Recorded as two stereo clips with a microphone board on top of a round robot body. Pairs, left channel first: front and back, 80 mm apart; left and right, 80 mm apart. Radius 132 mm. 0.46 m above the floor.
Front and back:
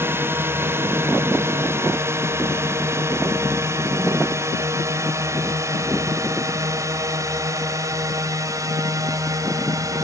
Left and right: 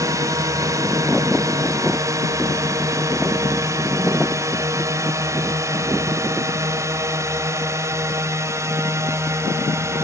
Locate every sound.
0.0 s a drone: 125° right; by 10.1 s 140° right